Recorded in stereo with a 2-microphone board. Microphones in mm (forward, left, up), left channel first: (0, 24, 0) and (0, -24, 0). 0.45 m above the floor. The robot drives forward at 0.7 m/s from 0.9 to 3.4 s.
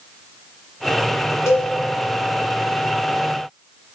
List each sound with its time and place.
1.5 s a cowbell: 85° left, 0.9 m